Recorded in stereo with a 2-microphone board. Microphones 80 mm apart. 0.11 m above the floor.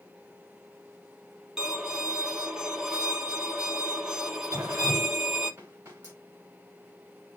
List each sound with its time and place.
1.6 s a violin: 5° right (ahead or behind), 2 m
4.5 s dripping: 30° right (ahead or behind), 3.5 m